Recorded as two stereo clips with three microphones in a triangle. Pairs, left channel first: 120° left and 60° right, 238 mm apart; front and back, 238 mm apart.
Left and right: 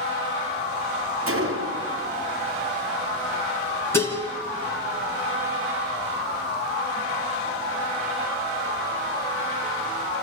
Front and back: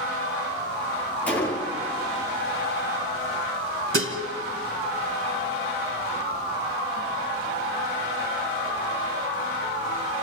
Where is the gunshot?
85° right, 3.5 m.